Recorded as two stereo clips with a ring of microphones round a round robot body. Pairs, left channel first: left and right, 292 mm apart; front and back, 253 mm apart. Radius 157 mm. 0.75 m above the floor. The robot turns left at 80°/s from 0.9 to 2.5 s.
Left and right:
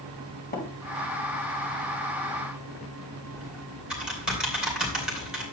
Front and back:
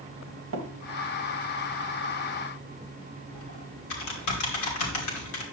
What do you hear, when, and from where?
0.5 s tapping: 150° left, 2.5 m
3.3 s typing on a keyboard: straight ahead, 2.5 m